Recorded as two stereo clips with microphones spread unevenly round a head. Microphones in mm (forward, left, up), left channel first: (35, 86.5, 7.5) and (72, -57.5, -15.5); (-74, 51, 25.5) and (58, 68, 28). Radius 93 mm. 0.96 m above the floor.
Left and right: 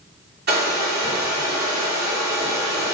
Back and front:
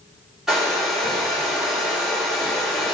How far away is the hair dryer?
About 3 m.